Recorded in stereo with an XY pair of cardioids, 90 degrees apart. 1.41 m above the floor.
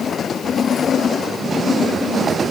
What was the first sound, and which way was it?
Only background noise.